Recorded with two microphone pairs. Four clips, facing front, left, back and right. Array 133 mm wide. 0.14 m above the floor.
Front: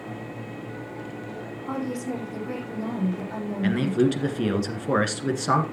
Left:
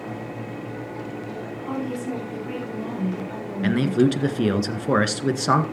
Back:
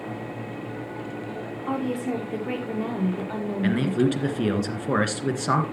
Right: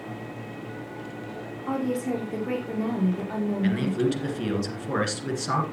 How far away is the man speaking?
About 1.9 m.